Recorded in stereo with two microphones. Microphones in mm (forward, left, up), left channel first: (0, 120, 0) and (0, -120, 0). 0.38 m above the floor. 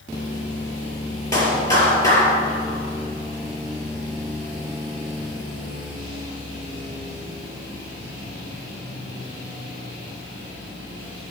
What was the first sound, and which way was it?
A clap, 15° left (ahead or behind).